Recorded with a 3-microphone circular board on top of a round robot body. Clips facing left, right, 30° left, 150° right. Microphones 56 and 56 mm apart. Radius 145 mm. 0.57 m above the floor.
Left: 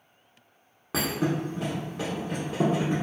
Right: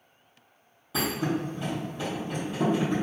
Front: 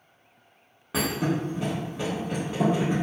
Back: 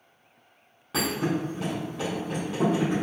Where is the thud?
115° left, 0.7 m.